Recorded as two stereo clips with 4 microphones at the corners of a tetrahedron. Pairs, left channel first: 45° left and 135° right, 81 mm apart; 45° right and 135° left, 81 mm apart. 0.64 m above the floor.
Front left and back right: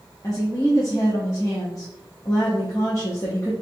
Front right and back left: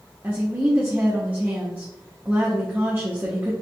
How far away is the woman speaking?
About 0.8 m.